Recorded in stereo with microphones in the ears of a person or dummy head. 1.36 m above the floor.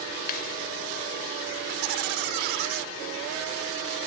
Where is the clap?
45° left (ahead or behind).